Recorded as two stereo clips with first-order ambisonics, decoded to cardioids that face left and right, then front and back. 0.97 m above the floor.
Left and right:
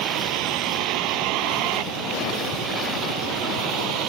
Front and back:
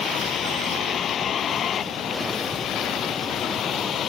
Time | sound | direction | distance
0.0 | a vehicle | 65° right | ?